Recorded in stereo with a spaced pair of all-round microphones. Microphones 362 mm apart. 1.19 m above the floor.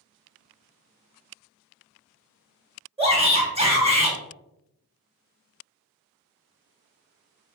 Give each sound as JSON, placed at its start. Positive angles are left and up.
{"t": 3.0, "sound": "a shout", "side_deg": -15, "distance_m": 1.4}